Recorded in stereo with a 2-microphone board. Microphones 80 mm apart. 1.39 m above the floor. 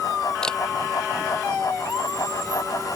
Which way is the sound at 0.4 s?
10° left (ahead or behind).